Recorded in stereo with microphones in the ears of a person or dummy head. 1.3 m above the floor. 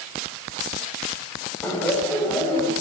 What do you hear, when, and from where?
1.6 s laughter: 5° left (ahead or behind), 8.5 m; by 2.7 s 15° left (ahead or behind), 8 m